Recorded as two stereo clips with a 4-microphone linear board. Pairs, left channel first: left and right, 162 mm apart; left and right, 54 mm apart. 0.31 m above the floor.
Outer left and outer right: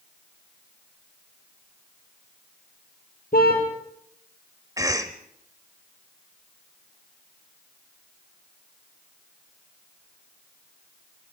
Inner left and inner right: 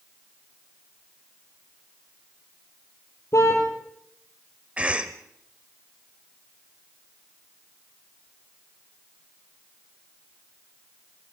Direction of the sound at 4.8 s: 20° right (ahead or behind).